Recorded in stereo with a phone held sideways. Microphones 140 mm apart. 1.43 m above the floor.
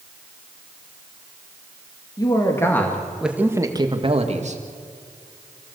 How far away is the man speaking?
About 2.5 m.